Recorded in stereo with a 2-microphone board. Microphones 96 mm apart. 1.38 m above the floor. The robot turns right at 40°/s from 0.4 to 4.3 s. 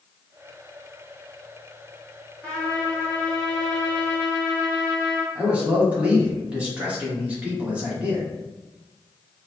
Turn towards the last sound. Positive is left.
turn(degrees=-15)  # may be behind; listen again after turning